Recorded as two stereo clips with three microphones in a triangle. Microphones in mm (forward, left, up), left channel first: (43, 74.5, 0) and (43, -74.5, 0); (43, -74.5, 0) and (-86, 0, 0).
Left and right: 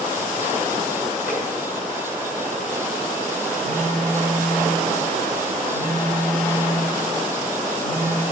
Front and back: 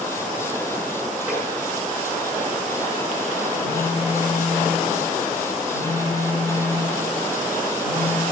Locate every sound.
1.3 s tapping: 70° left, 4.5 m
3.6 s a phone buzzing: 95° left, 7.5 m